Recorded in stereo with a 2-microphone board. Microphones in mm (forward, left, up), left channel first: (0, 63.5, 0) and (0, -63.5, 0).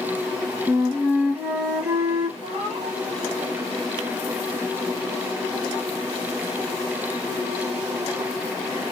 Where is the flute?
20° right (ahead or behind), 2 m.